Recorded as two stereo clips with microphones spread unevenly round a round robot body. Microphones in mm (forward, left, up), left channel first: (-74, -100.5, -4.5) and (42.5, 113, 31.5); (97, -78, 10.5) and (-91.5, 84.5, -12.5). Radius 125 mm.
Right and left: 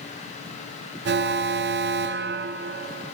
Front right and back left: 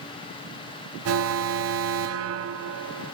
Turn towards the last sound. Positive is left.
turn(degrees=110)